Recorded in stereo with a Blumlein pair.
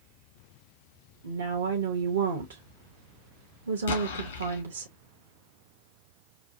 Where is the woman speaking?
60° right, 0.9 m.